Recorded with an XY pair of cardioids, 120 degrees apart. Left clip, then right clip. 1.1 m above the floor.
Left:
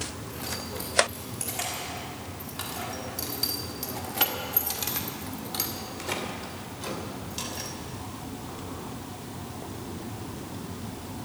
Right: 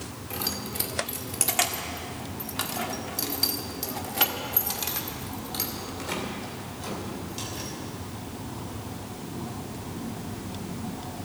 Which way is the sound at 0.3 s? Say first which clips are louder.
Right 7 dB; 70° right.